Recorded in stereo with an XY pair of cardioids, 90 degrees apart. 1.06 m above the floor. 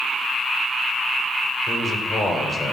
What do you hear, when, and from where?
1.7 s a man speaking: 40° left, 4 m